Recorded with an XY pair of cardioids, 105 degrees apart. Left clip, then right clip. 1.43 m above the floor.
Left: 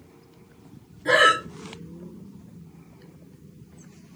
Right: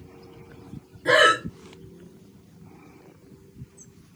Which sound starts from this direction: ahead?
Breathing, at 1.1 s.